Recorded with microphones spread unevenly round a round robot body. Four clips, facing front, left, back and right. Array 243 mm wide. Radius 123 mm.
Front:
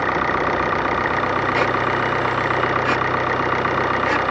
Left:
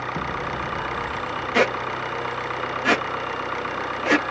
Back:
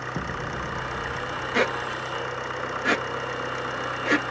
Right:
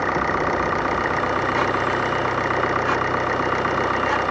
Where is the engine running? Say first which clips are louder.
Right 7 dB, front 12 dB; 40° right.